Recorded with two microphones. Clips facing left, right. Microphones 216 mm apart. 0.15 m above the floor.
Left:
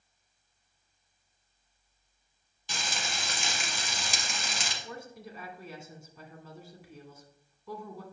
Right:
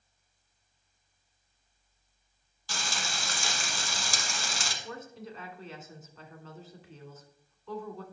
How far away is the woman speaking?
About 1.5 m.